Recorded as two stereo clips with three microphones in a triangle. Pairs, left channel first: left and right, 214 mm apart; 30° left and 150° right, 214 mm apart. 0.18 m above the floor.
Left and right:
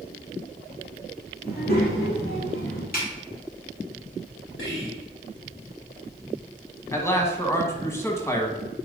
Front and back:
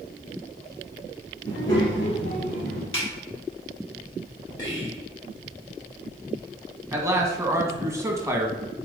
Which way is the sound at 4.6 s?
80° left.